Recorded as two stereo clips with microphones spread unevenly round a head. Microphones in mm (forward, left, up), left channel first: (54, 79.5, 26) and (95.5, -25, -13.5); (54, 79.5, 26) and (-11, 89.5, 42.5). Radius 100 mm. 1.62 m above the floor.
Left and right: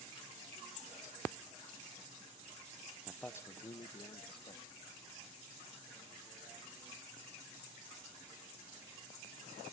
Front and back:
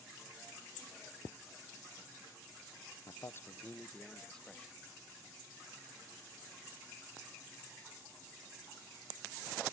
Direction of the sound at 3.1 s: 25° left.